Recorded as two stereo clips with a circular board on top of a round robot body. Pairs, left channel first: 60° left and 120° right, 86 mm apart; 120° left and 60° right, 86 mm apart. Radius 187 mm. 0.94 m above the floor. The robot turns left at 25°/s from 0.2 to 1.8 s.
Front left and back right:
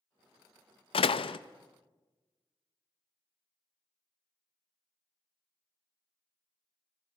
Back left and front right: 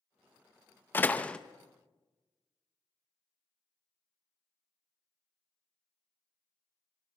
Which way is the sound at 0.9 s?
50° left.